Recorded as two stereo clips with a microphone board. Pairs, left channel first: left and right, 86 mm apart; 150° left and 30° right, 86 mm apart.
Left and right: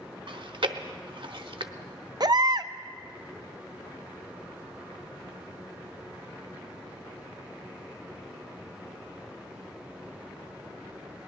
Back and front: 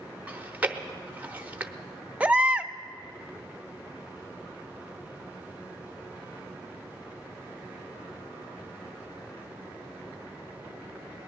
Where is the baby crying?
100° right, 0.5 m.